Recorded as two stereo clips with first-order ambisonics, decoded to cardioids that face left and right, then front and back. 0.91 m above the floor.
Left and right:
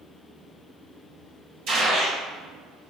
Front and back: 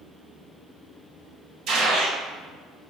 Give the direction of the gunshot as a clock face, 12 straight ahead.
4 o'clock.